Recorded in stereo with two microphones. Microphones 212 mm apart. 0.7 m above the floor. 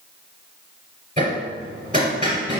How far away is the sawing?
I don't hear sawing.